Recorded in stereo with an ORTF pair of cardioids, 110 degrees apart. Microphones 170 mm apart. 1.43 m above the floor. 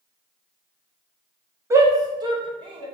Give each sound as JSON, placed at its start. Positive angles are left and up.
{"t": 1.7, "sound": "a shout", "azimuth_deg": -15, "distance_m": 1.0}